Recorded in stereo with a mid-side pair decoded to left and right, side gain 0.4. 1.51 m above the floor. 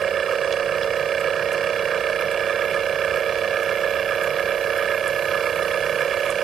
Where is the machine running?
65° right.